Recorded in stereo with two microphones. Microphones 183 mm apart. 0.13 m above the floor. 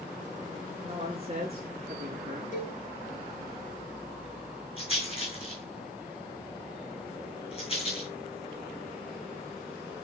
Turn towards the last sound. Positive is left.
turn(degrees=35)  # may be behind; listen again after turning